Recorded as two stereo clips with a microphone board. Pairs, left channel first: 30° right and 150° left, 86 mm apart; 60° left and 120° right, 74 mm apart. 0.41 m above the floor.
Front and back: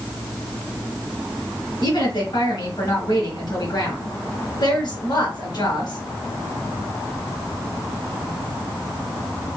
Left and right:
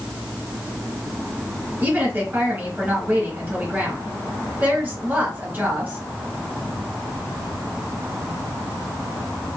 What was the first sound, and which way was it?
A woman speaking, 55° right.